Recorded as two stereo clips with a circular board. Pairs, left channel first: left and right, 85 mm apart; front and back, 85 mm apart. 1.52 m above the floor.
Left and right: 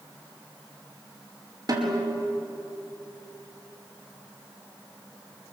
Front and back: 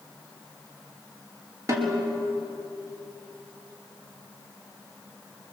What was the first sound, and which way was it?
A snare drum, 125° right.